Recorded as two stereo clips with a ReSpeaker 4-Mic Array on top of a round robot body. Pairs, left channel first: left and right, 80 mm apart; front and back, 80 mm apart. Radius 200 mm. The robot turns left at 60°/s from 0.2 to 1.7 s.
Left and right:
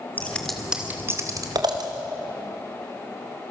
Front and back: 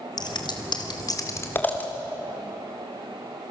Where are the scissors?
20° left, 2.5 m; by 1.9 s 70° right, 2.5 m.